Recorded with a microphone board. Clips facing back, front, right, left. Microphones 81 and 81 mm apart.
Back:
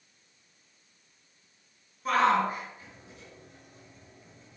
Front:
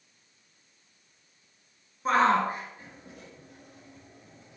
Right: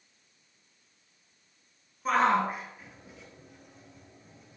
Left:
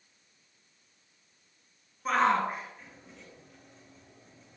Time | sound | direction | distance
2.0 | a shout | straight ahead | 1.5 m